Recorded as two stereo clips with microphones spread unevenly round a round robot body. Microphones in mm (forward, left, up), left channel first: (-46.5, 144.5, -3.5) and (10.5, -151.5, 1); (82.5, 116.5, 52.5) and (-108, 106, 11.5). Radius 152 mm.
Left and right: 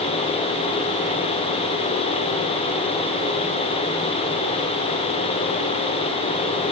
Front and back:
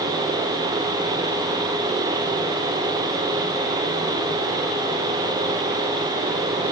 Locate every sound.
Only background noise.